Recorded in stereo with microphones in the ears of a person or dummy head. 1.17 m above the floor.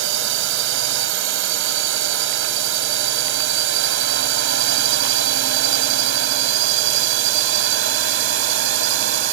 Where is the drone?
75° right (ahead or behind); by 9.3 s 70° right (ahead or behind).